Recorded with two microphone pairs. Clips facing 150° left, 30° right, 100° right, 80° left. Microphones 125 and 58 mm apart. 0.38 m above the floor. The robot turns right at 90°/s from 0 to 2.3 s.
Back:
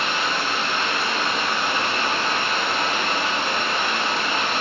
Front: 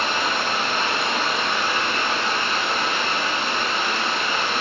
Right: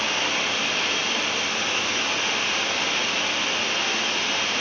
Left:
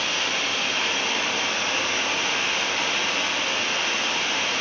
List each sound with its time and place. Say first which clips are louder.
0.0 s running water: front 1 dB, right 1 dB; 65° right, 0.8 m; by 4.6 s 145° left, 0.8 m